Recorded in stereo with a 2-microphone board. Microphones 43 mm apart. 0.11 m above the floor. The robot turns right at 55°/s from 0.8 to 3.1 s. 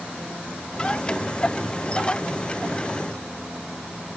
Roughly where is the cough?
No cough in this recording.